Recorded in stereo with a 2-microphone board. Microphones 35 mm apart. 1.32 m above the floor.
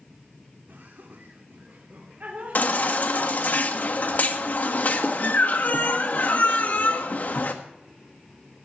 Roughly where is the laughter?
Right.